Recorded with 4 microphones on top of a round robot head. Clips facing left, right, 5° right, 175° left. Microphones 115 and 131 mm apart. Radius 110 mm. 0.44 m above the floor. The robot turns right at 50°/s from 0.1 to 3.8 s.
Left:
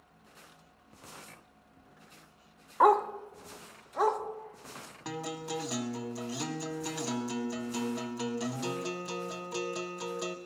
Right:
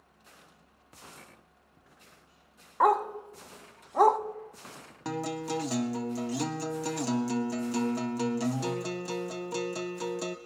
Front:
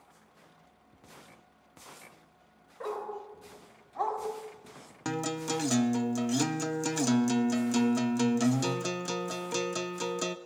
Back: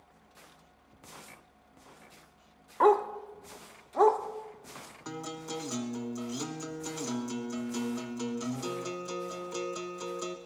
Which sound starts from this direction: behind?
A dog barking, at 2.8 s.